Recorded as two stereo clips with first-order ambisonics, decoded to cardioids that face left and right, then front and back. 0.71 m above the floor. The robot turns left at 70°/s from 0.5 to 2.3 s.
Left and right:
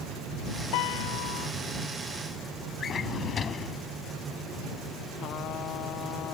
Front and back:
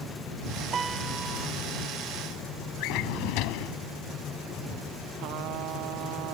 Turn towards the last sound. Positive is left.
turn(degrees=140)